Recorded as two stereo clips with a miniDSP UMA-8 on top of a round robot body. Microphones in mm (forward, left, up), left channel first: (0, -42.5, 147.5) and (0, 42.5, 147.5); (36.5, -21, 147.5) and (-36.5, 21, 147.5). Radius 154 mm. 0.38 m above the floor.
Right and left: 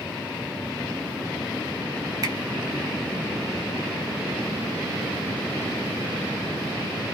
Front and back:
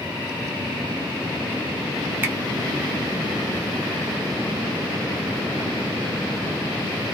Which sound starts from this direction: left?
A finger snap, at 2.2 s.